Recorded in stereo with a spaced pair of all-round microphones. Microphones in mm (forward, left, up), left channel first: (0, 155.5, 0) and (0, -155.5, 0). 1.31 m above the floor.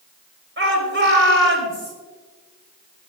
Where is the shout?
40° right (ahead or behind), 3.5 m.